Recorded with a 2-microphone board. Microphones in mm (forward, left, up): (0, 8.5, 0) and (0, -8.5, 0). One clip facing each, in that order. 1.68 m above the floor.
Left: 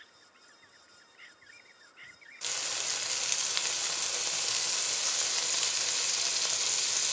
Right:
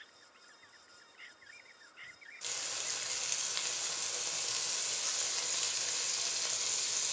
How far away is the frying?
About 1.1 m.